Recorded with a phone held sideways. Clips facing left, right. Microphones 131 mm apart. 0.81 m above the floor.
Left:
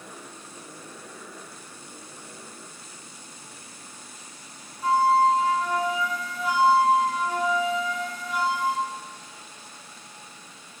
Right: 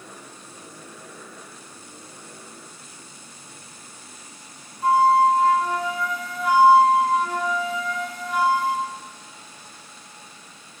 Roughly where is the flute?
Right.